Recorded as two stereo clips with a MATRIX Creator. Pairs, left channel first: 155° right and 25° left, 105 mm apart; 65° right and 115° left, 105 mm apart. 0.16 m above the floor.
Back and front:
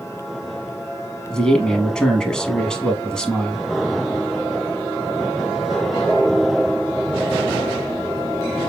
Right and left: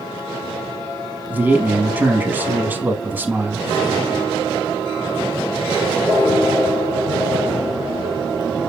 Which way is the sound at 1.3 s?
135° left.